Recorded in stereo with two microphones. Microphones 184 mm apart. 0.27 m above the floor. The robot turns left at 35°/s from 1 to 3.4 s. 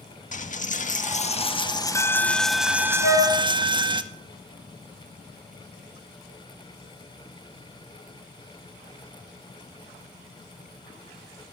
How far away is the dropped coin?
About 0.5 m.